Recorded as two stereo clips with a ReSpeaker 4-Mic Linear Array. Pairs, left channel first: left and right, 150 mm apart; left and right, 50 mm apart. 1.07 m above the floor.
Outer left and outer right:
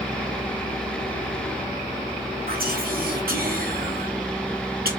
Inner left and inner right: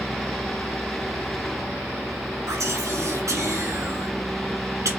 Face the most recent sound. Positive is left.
turn(degrees=-90)